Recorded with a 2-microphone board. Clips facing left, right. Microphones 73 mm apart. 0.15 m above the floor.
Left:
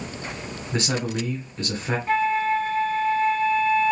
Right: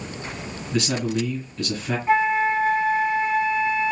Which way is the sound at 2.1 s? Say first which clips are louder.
Right 2 dB; 15° right (ahead or behind).